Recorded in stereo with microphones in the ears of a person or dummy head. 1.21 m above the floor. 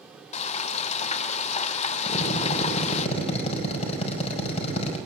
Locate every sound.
0.3 s frying: 35° left (ahead or behind), 1.7 m
2.1 s a drill: 35° left (ahead or behind), 5 m